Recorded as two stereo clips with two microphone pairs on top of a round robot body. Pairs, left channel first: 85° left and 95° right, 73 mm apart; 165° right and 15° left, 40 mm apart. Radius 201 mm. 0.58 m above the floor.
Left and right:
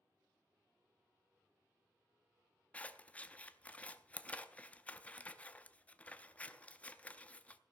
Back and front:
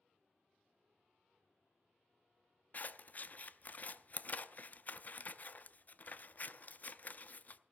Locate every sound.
2.7 s scissors: 155° left, 0.7 m